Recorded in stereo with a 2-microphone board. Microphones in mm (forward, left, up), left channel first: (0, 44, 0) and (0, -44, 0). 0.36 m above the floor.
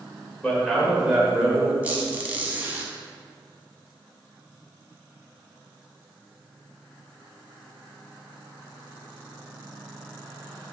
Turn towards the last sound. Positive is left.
turn(degrees=-20)  # may be behind; listen again after turning